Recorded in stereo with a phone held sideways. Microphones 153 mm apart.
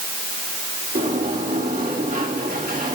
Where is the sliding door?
60° right (ahead or behind), 1.7 m.